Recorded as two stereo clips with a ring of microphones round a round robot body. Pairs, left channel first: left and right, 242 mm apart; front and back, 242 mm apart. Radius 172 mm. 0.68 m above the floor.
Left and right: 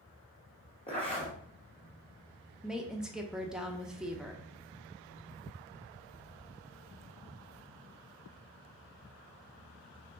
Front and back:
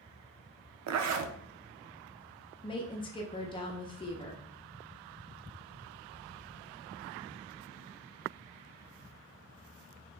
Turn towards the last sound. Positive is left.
turn(degrees=-10)